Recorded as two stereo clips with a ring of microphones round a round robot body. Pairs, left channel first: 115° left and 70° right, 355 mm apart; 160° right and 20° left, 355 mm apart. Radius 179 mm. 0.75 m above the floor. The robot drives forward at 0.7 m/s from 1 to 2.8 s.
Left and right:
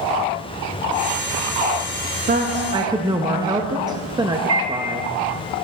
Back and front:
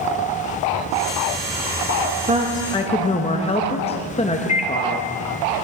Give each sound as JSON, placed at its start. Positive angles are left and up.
{"t": 2.3, "sound": "a woman speaking", "azimuth_deg": -25, "distance_m": 0.6}
{"t": 4.5, "sound": "a microwave", "azimuth_deg": -95, "distance_m": 0.7}